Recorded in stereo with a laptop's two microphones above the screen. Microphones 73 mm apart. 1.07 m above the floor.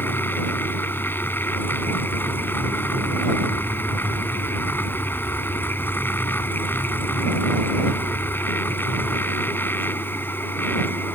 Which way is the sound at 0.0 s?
30° left (ahead or behind).